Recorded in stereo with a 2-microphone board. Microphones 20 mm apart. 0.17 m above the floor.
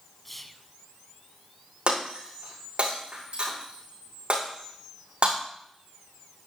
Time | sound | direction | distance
0.2 | whispering | 10° left (ahead or behind) | 1.0 m
1.9 | breaking glass | 65° right (ahead or behind) | 7.5 m